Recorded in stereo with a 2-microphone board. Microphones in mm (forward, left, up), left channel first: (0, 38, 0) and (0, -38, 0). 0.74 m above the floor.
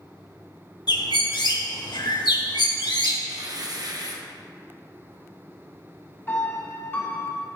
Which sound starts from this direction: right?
Tearing paper, at 3.3 s.